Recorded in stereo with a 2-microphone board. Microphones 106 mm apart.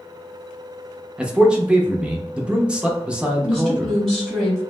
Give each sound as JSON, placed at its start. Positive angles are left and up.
{"t": 1.2, "sound": "a man speaking", "side_deg": -10, "distance_m": 0.6}
{"t": 3.4, "sound": "a woman speaking", "side_deg": 5, "distance_m": 1.3}